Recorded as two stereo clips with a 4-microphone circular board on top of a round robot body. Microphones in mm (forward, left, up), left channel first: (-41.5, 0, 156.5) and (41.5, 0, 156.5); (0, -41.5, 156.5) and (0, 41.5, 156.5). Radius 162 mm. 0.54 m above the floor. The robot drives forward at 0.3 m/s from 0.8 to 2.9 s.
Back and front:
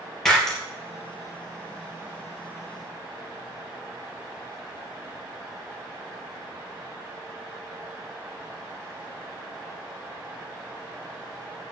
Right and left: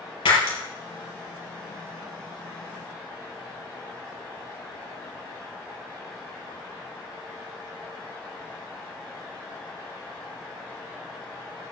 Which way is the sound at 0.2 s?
95° right.